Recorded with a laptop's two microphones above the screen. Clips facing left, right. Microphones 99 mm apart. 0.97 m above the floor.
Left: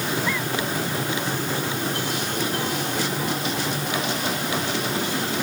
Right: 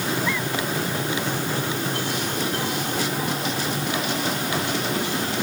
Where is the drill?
I don't hear a drill.